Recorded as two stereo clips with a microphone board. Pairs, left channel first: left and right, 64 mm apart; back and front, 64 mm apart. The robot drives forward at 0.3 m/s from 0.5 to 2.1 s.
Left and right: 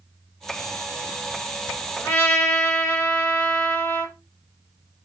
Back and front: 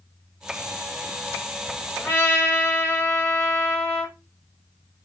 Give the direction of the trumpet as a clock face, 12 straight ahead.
7 o'clock.